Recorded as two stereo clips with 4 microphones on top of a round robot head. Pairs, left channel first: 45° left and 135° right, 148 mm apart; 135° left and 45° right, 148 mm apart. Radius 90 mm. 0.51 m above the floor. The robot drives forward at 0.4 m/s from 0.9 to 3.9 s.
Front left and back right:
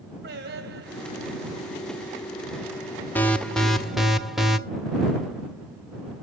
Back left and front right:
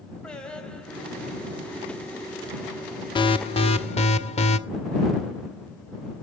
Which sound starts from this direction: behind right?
Singing, at 0.2 s.